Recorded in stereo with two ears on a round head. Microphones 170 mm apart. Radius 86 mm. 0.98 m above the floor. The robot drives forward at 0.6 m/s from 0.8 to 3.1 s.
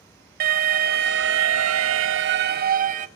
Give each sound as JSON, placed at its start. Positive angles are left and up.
{"t": 0.4, "sound": "an alarm", "side_deg": -45, "distance_m": 0.9}